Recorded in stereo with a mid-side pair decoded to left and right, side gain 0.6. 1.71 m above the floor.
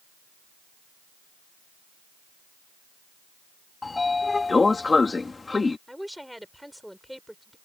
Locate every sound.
3.8 s a sliding door: 20° left
5.9 s a woman speaking: straight ahead